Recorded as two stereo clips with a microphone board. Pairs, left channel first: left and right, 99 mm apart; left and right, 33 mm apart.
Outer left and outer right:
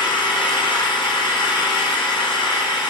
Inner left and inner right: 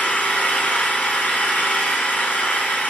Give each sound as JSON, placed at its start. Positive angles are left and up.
{"t": 0.0, "sound": "an engine running", "side_deg": 50, "distance_m": 1.0}